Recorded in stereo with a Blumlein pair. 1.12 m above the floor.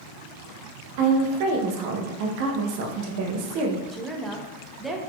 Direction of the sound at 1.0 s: 45° right.